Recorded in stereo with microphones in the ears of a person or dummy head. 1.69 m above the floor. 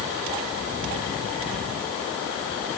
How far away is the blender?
I don't hear a blender.